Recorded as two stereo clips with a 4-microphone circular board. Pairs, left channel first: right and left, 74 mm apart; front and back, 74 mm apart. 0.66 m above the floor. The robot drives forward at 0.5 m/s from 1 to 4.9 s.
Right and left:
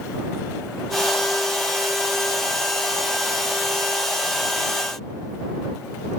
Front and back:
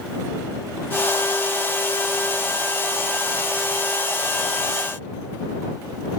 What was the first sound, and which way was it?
Only background noise.